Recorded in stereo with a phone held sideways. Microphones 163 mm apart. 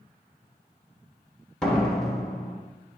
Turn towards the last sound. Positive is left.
turn(degrees=5)  # may be behind; listen again after turning